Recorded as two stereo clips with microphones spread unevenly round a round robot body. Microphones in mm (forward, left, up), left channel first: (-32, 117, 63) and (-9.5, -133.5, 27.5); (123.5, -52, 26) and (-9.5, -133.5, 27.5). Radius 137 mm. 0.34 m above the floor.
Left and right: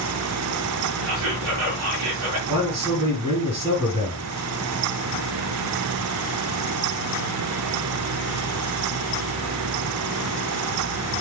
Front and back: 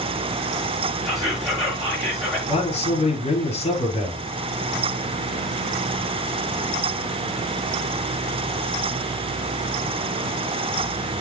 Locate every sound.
1.1 s whispering: 60° right, 5 m
2.5 s a man speaking: 15° right, 5.5 m